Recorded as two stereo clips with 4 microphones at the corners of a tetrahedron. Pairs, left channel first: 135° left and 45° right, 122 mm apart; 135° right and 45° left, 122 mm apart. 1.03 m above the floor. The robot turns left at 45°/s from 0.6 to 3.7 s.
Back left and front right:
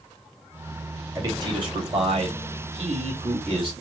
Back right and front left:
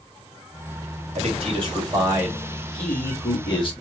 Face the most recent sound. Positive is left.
turn(degrees=-95)